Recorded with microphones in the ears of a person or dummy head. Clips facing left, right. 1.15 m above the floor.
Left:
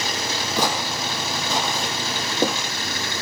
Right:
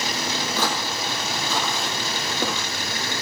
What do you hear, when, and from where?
0.6 s footsteps: 15° left (ahead or behind), 3 m; by 2.7 s 20° left (ahead or behind), 4 m